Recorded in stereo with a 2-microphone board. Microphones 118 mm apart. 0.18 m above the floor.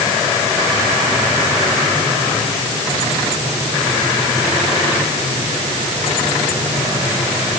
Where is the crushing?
I don't hear crushing.